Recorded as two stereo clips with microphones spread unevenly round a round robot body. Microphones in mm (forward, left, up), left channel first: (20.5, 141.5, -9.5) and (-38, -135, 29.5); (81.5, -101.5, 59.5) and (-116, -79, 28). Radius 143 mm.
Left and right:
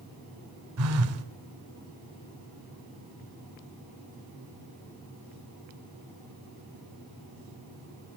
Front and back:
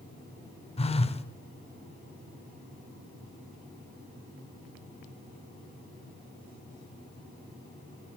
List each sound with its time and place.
0.8 s a phone buzzing: 70° right, 1.0 m